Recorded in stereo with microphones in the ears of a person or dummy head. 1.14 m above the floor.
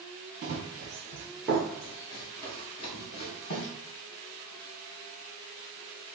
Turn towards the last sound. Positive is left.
turn(degrees=55)  # may be behind; listen again after turning